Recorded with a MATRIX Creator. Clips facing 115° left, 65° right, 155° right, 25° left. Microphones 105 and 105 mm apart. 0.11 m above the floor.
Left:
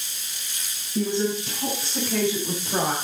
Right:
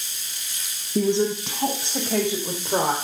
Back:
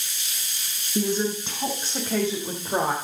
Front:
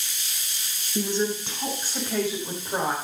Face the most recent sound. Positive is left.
turn(degrees=-105)